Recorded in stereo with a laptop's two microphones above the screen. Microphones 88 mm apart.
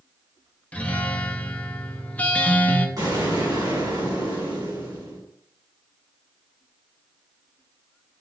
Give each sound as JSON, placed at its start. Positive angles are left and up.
{"t": 0.7, "sound": "a guitar", "side_deg": 15, "distance_m": 0.5}
{"t": 3.0, "sound": "an explosion", "side_deg": -45, "distance_m": 1.5}